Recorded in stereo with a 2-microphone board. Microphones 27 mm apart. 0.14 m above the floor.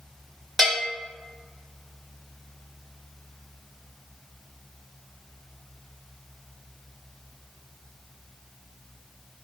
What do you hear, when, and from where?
0.6 s a bell: 10° left (ahead or behind), 1.5 m